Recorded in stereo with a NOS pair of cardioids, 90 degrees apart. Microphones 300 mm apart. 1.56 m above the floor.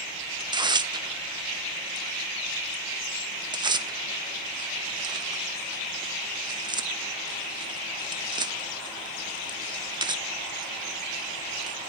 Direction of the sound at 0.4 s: 15° right.